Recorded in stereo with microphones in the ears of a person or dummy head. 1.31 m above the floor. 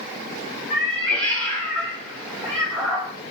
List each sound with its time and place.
0.7 s a cat meowing: 5° left (ahead or behind), 0.8 m